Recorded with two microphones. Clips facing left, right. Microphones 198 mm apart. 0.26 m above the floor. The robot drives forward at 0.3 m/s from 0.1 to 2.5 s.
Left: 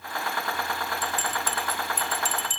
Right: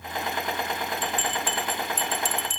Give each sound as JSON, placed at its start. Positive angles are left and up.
{"t": 1.0, "sound": "a bell", "side_deg": 45, "distance_m": 1.3}